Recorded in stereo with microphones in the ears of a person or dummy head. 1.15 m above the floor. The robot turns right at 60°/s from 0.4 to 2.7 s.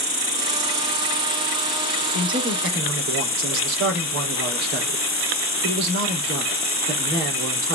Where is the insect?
120° right, 1.6 m; by 7.8 s 20° left, 1.6 m.